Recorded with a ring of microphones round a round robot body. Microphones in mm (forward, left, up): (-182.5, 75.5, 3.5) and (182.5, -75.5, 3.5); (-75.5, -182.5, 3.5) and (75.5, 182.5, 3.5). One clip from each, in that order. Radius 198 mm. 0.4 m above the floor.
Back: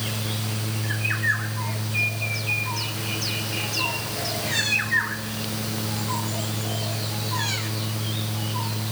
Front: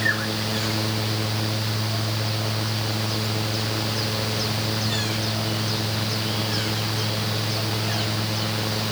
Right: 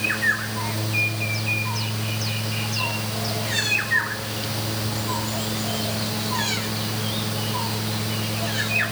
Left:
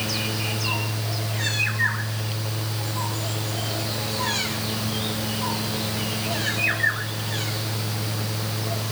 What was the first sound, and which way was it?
Only background noise.